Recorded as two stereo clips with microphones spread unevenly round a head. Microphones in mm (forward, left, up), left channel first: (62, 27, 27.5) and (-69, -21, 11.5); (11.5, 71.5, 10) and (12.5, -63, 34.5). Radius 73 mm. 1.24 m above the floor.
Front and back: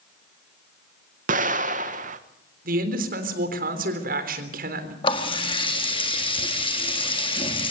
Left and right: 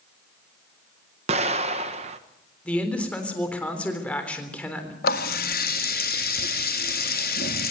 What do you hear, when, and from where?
1.3 s an explosion: 135° right, 1.4 m
2.6 s a man speaking: 175° left, 3.5 m
5.0 s a running tap: 75° left, 1.7 m